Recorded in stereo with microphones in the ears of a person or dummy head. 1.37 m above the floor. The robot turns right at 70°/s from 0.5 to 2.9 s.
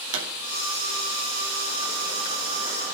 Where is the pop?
85° right, 4 m.